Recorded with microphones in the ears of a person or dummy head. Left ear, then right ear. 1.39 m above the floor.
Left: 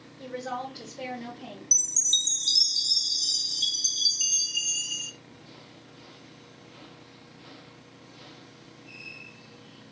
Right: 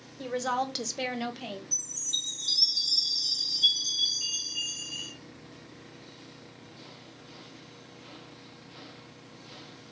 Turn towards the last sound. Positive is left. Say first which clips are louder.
# left 8 dB
turn(degrees=60)  # may be behind; listen again after turning